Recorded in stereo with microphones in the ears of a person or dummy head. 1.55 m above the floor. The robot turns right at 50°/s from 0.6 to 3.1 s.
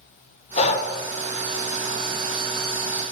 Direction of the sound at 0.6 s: 30° left (ahead or behind).